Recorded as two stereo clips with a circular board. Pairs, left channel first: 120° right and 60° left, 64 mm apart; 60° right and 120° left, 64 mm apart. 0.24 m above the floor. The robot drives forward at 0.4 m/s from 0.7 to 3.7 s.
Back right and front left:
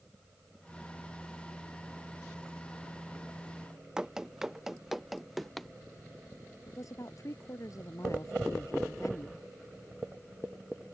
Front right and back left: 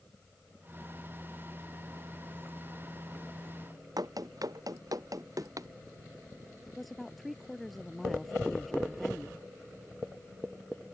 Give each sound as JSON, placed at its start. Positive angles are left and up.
{"t": 4.0, "sound": "running footsteps", "azimuth_deg": 140}
{"t": 6.7, "sound": "a woman speaking", "azimuth_deg": -150}